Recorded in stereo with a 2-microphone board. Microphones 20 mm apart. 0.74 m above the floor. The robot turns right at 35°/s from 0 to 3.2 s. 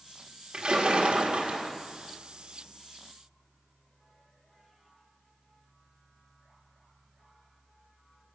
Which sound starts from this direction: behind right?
A splash, at 0.5 s.